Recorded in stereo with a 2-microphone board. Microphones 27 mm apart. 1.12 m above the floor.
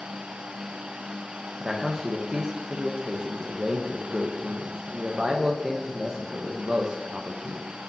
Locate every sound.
1.6 s a man speaking: 35° right (ahead or behind), 1.0 m